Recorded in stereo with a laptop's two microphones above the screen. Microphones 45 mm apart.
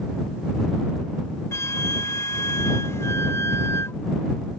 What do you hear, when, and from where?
1.5 s a flute: 90° left